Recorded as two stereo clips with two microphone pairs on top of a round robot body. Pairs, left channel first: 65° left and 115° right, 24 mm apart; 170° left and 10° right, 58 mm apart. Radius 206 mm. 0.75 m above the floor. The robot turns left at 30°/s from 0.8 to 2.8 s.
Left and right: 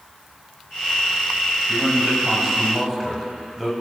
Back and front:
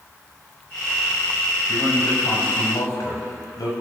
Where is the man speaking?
170° right, 7.5 m; by 3.7 s 160° left, 7.5 m.